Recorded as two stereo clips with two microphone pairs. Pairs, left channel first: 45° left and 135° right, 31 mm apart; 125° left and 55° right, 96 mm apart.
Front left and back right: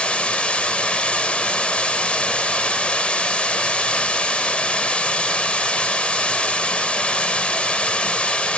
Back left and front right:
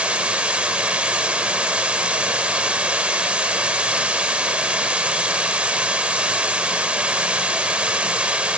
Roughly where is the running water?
Ahead.